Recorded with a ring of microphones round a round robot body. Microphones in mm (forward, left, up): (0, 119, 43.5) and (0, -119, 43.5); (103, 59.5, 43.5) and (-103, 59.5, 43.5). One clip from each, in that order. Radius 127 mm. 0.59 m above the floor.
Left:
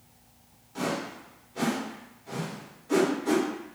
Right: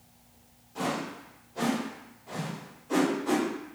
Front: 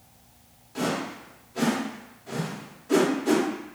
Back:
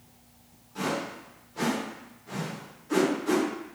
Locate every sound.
0.8 s a whoosh: 35° left, 1.1 m